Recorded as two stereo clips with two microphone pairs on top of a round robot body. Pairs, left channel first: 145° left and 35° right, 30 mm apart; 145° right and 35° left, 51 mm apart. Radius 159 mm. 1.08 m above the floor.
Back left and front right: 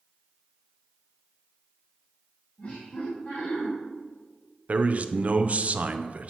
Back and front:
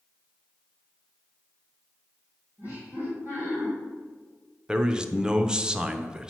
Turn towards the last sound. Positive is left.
turn(degrees=-60)